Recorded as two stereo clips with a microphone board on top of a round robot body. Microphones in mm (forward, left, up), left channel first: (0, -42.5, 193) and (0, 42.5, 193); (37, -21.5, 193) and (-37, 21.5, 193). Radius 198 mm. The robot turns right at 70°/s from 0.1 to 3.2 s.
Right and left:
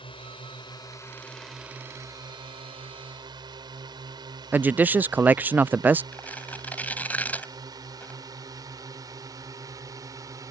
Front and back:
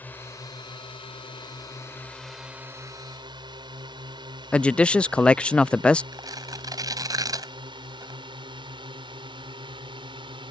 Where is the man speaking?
40° left.